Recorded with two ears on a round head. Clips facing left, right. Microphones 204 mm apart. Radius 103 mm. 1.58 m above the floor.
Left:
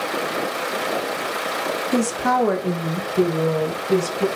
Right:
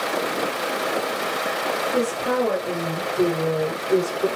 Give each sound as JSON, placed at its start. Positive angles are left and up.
{"t": 1.9, "sound": "a woman speaking", "side_deg": 80, "distance_m": 1.7}